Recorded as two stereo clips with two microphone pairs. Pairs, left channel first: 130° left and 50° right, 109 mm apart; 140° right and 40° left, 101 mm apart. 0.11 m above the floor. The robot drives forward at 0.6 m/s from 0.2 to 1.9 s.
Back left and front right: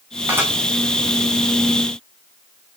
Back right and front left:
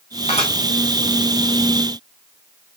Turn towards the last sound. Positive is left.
turn(degrees=-130)